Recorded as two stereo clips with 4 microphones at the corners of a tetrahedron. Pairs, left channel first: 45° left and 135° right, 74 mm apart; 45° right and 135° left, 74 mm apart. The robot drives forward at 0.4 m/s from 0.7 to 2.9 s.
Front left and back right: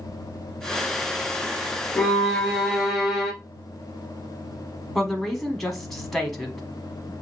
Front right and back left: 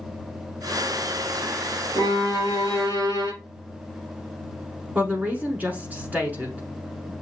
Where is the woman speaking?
125° left, 1.1 m.